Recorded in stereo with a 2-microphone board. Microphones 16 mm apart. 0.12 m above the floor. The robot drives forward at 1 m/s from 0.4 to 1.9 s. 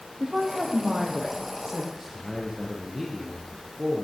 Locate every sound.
0.2 s a woman speaking: 60° right (ahead or behind), 4 m; by 1.9 s 50° right (ahead or behind), 5 m
1.9 s a man speaking: 25° right (ahead or behind), 3.5 m